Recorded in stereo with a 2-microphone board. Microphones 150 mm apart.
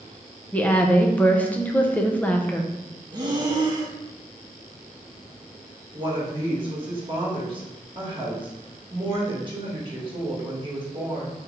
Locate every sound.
0.5 s a woman speaking: 10° left (ahead or behind), 0.6 m
3.1 s breathing: 30° right (ahead or behind), 0.7 m
5.9 s a woman speaking: 35° right (ahead or behind), 1.6 m